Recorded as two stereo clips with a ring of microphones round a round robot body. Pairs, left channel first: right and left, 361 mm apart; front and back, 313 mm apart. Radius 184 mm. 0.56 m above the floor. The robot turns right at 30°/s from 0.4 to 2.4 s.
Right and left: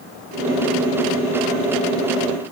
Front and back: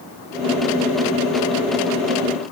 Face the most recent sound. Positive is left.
No sound to turn to.